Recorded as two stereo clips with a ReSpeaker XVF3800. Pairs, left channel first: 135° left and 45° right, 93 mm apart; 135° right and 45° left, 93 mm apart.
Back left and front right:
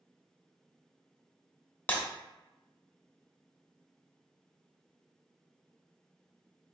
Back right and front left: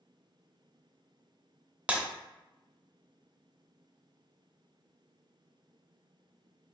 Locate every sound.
1.9 s breaking glass: 100° left, 0.9 m